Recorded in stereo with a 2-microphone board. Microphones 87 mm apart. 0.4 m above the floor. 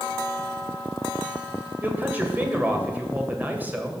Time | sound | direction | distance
1.8 | a man speaking | 20° right (ahead or behind) | 1.8 m